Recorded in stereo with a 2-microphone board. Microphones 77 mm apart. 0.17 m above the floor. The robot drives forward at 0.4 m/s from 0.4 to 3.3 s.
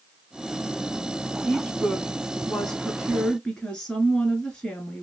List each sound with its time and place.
1.4 s a woman speaking: 10° left (ahead or behind), 1.9 m; by 5.0 s 15° left (ahead or behind), 1.6 m